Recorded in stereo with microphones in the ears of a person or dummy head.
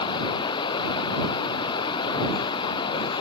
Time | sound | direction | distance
0.0 | running water | 25° left (ahead or behind) | ?